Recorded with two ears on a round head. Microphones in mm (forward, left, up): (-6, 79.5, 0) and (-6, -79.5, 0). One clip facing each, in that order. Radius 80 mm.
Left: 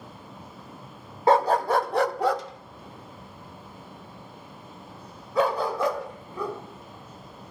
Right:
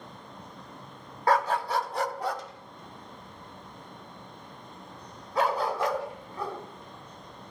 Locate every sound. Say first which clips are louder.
1.3 s a dog barking: left 5 dB; 20° left (ahead or behind), 0.5 m; by 6.6 s 80° left, 3.5 m